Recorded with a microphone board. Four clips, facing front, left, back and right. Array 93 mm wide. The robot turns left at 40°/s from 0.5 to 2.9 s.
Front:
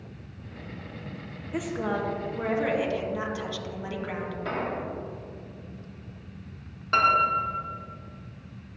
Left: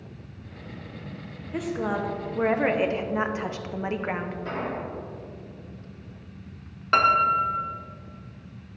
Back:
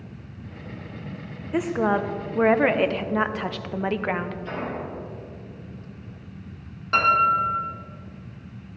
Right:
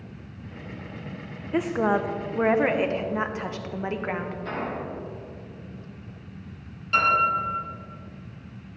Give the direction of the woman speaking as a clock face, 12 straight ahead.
4 o'clock.